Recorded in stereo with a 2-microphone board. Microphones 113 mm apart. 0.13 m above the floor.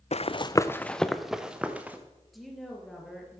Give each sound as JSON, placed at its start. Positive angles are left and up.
{"t": 0.1, "sound": "running footsteps", "side_deg": 70, "distance_m": 0.6}
{"t": 2.3, "sound": "a woman speaking", "side_deg": 0, "distance_m": 3.0}